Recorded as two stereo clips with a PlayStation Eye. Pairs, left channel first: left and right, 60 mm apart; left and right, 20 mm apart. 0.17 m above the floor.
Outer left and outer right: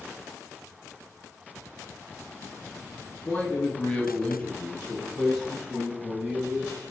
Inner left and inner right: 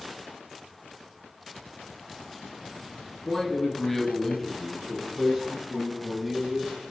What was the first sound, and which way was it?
A man speaking, 25° left (ahead or behind).